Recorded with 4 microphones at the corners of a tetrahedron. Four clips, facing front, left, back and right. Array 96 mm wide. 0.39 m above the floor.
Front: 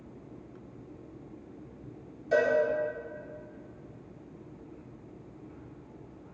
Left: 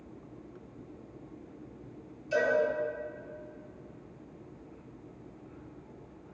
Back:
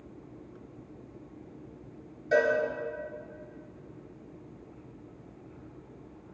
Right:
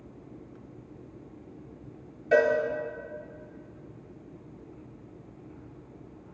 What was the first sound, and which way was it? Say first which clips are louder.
A cowbell: right 6 dB, back 1 dB; 100° right.